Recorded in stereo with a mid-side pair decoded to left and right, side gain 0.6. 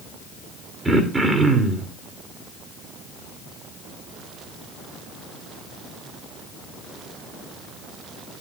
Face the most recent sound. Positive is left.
turn(degrees=-20)